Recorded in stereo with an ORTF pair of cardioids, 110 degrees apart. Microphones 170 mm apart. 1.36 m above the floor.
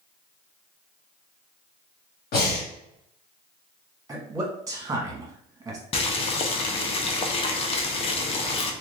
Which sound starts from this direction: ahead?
A man speaking, at 4.1 s.